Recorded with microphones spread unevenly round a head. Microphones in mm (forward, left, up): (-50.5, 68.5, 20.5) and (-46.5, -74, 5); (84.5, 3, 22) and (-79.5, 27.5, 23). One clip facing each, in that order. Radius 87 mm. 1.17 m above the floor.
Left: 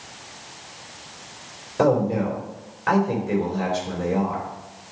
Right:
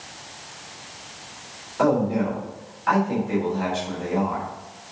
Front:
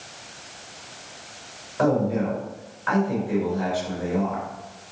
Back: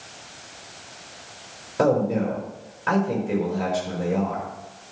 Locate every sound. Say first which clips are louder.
1.8 s a man speaking: left 1 dB, back 1 dB; 135° left, 3.5 m